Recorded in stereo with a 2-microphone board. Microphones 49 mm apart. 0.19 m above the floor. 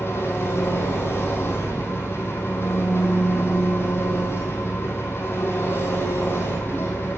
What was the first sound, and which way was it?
An engine running, 60° left (ahead or behind).